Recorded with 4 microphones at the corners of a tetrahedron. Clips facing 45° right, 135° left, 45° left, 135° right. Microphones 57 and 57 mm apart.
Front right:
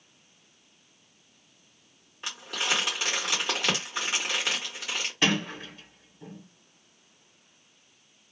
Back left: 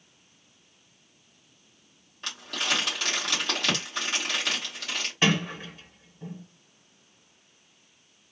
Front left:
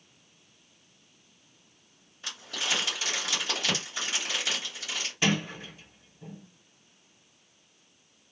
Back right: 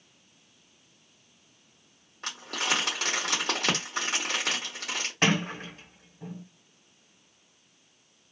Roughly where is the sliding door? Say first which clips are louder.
Back left 2 dB, back right 2 dB; behind right.